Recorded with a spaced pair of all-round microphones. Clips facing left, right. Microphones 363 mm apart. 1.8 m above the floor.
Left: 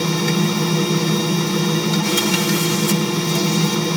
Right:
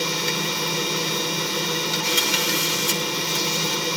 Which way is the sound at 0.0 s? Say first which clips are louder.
Left 9 dB; 65° left (ahead or behind).